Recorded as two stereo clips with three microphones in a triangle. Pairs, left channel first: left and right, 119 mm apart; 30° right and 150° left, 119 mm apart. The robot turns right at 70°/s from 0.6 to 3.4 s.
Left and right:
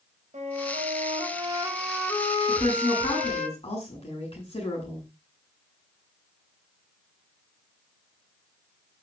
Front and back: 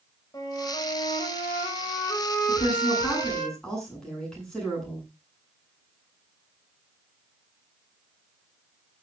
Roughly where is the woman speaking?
Ahead.